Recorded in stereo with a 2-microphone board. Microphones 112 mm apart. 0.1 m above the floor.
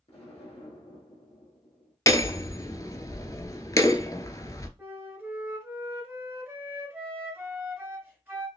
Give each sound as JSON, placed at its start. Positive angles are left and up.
{"t": 0.1, "sound": "an explosion", "side_deg": 60, "distance_m": 3.0}
{"t": 2.1, "sound": "hammering", "side_deg": 30, "distance_m": 0.6}
{"t": 4.8, "sound": "a flute", "side_deg": -20, "distance_m": 1.6}